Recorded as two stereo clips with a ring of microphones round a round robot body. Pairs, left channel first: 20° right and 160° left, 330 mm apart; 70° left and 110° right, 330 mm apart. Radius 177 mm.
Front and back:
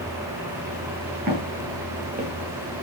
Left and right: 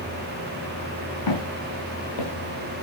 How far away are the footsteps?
About 7.5 m.